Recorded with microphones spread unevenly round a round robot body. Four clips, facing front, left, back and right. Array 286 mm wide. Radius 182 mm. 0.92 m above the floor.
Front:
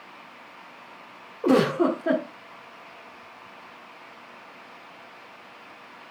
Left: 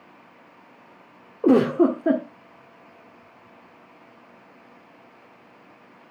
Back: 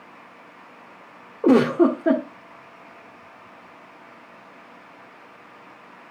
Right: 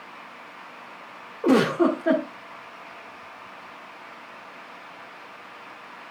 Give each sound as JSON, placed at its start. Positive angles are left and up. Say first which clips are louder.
{"t": 1.4, "sound": "a giggle", "louder": "left 2 dB, back 4 dB", "azimuth_deg": 130, "distance_m": 1.4}